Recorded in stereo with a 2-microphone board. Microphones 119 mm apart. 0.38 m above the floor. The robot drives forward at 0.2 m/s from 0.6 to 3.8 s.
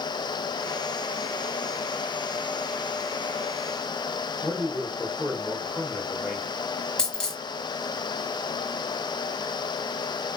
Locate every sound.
4.4 s a man speaking: 5° right (ahead or behind), 1.2 m
7.0 s a dropped coin: 5° left (ahead or behind), 1.0 m